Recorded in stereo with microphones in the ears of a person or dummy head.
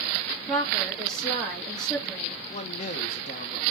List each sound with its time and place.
0.5 s a woman speaking: 10° left (ahead or behind), 2 m
2.5 s a man speaking: 45° left (ahead or behind), 1.3 m